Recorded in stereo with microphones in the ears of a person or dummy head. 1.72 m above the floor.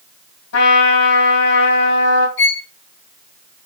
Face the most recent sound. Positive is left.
turn(degrees=60)  # may be behind; listen again after turning